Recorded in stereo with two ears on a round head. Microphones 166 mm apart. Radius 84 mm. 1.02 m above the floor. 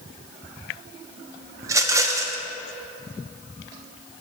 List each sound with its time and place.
1.6 s a rattle: 15° right (ahead or behind), 0.5 m